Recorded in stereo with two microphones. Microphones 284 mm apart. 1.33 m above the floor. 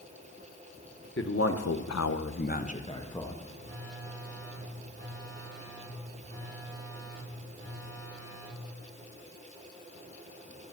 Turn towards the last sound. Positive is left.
turn(degrees=-50)  # may be behind; listen again after turning